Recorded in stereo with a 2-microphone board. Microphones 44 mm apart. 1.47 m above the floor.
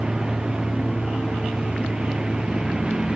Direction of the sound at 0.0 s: 20° right (ahead or behind).